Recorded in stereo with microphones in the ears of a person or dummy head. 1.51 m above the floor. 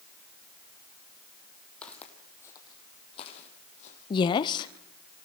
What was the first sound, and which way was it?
Footsteps, centre (ahead or behind).